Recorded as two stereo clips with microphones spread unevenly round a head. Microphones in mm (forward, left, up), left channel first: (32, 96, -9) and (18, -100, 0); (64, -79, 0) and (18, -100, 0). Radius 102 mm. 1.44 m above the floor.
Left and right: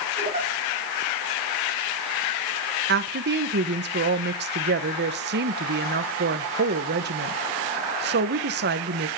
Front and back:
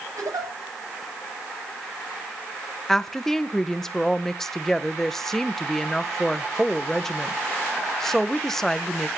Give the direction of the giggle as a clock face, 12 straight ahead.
5 o'clock.